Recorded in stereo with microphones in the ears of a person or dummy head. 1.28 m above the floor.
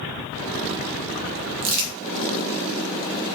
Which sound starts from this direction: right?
Crumpling, at 1.6 s.